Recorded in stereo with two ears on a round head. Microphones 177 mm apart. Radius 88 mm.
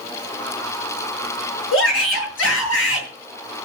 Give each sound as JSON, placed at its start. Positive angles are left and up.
{"t": 1.7, "sound": "a shout", "side_deg": 65, "distance_m": 8.5}